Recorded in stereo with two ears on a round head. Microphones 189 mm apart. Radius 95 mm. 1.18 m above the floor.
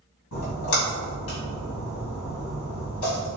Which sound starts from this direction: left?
A splash, at 0.3 s.